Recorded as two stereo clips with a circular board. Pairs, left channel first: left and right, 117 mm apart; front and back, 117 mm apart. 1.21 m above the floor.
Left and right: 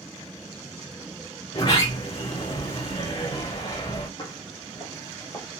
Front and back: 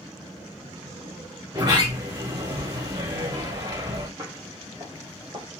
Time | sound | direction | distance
1.5 | a sliding door | 125° left | 1.9 m
4.2 | footsteps | 120° left | 1.7 m